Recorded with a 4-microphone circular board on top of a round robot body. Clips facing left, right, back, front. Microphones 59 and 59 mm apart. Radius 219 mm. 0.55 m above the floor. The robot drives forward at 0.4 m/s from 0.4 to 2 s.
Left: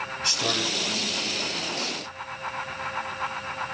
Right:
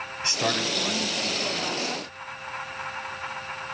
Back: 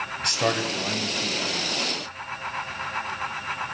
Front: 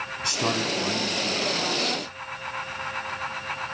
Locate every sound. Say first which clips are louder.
0.2 s a man speaking: right 3 dB, back 1 dB; 150° right, 4 m; by 2.0 s 155° right, 4.5 m